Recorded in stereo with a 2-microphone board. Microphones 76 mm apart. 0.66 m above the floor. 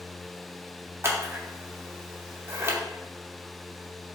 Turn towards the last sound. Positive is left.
turn(degrees=-40)  # may be behind; listen again after turning